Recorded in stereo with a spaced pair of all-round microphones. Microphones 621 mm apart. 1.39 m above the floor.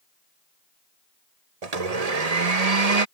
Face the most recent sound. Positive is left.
turn(degrees=-75)  # may be behind; listen again after turning